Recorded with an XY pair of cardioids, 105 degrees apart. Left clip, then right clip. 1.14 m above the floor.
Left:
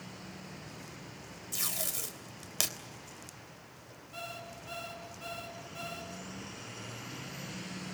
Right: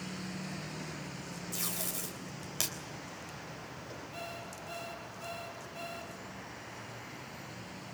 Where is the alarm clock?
30° left, 5.5 m.